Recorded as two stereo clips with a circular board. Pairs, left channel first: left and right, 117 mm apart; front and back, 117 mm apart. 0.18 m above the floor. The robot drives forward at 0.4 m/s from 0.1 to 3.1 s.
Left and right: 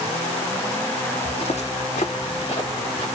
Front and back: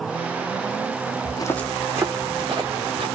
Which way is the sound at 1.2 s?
40° left.